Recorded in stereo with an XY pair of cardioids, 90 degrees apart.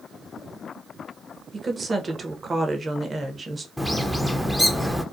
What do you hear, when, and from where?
1.5 s a woman speaking: 40° right, 0.8 m
3.8 s a bird: 5° right, 0.5 m